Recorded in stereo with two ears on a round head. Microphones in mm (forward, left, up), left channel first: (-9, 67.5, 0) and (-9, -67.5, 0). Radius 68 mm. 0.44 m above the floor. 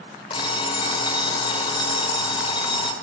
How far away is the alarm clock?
About 1.0 m.